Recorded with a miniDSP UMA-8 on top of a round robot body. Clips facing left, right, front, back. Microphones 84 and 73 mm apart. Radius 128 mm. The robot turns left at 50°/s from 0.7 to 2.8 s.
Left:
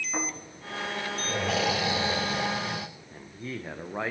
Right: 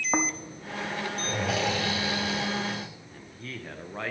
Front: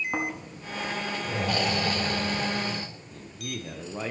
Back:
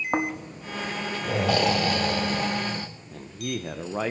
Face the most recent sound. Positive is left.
turn(degrees=165)